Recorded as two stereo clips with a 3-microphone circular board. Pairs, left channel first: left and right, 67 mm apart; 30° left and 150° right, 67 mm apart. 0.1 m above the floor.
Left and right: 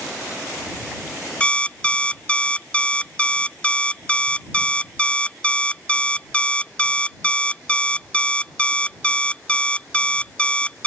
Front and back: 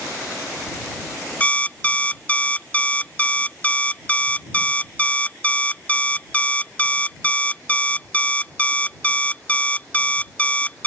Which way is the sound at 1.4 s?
50° left.